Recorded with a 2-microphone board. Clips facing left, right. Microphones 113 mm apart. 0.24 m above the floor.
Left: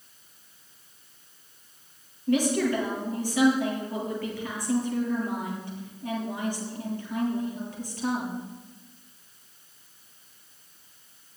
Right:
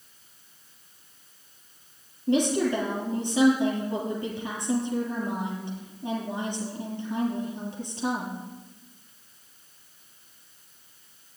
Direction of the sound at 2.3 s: 25° right (ahead or behind).